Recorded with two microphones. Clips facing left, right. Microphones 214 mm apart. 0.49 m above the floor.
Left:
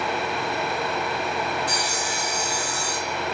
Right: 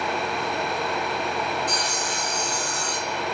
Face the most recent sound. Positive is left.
turn(degrees=10)  # may be behind; listen again after turning